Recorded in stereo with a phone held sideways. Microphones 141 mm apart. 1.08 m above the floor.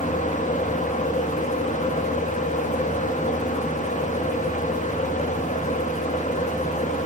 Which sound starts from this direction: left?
A fan, at 0.0 s.